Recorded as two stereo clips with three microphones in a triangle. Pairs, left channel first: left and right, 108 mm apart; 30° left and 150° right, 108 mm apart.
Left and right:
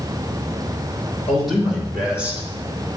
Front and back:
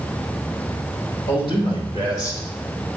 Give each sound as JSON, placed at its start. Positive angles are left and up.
{"t": 1.3, "sound": "a man speaking", "azimuth_deg": 5, "distance_m": 3.0}